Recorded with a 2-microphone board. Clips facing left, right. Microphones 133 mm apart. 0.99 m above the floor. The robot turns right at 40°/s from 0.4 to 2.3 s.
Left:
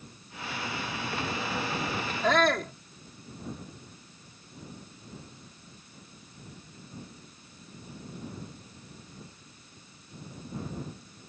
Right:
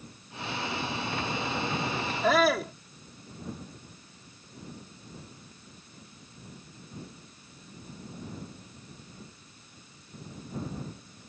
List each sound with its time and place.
2.2 s a shout: 10° right (ahead or behind); by 2.7 s 5° right (ahead or behind)